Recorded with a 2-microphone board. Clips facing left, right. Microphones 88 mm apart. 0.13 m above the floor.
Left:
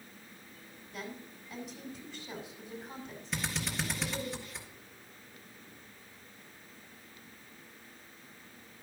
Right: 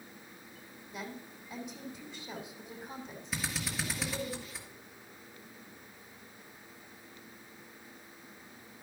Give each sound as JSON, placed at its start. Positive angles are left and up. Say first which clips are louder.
{"t": 0.9, "sound": "a woman speaking", "louder": "even", "side_deg": -20, "distance_m": 5.5}
{"t": 3.3, "sound": "a drill", "louder": "left 1 dB", "side_deg": -5, "distance_m": 2.5}